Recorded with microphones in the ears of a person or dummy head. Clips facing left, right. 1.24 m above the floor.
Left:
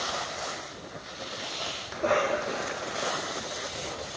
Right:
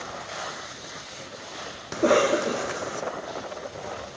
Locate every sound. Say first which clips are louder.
1.9 s a cough: right 6 dB; 45° right (ahead or behind)